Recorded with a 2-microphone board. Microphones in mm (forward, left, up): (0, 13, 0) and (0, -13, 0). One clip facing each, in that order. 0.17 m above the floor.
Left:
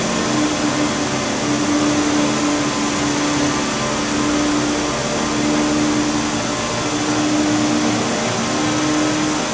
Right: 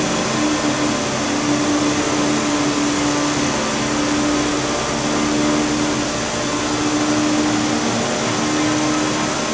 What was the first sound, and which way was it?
Only background noise.